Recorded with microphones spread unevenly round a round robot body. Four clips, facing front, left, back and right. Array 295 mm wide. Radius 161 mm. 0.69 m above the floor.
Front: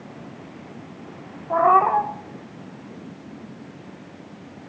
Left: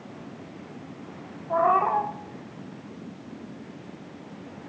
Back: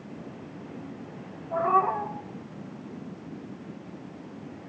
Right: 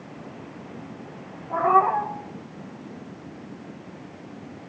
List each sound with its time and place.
1.5 s a cat meowing: straight ahead, 3 m